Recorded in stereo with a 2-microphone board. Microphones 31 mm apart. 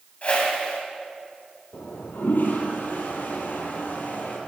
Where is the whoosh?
40° left (ahead or behind), 6.5 m.